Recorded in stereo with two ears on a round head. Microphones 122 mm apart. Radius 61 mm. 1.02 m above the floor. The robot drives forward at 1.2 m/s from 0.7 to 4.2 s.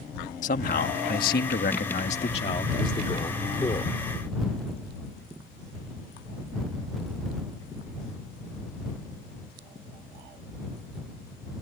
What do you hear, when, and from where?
0.4 s a man speaking: 60° left (ahead or behind); by 3.9 s 25° left (ahead or behind)